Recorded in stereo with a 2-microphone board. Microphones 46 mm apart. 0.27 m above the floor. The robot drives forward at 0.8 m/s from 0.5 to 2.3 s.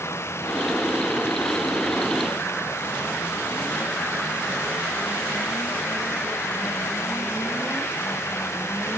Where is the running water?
70° left (ahead or behind); by 9.0 s 75° left (ahead or behind).